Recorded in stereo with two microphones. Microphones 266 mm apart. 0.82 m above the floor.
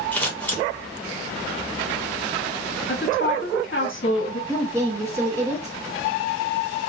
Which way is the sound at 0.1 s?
5° left (ahead or behind).